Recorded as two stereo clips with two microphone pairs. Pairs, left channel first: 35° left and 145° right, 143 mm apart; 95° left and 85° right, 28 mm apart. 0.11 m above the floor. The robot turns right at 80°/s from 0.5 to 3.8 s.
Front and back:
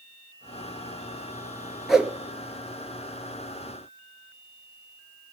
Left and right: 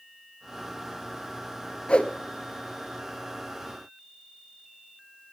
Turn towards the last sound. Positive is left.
turn(degrees=-80)